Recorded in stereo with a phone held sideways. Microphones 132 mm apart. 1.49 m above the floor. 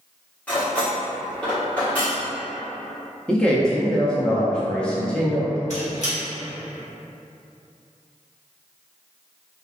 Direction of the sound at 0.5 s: 10° left (ahead or behind).